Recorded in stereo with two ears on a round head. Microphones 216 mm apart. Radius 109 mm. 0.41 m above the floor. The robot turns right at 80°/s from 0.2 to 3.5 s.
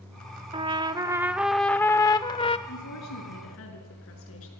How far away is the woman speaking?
About 6 m.